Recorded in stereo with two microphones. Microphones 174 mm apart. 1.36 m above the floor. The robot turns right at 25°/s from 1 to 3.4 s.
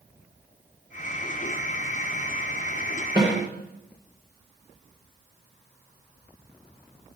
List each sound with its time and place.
3.2 s a snare drum: 30° right (ahead or behind), 3 m; by 3.3 s 25° right (ahead or behind), 3 m